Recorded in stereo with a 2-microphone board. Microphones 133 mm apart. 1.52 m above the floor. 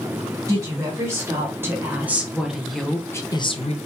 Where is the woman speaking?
25° right (ahead or behind), 2 m; by 3.8 s 55° left (ahead or behind), 0.5 m.